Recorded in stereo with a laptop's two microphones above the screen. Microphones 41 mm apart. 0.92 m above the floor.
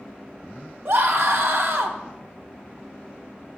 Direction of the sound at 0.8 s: 65° right (ahead or behind).